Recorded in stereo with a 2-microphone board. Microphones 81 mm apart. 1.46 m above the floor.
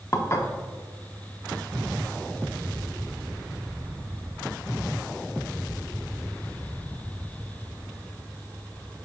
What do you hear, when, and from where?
0.1 s dishes clattering: 35° left (ahead or behind), 0.7 m